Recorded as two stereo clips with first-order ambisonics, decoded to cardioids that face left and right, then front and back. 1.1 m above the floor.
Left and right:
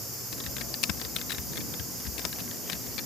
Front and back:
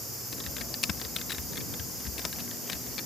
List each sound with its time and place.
0.3 s typing on a keyboard: 60° left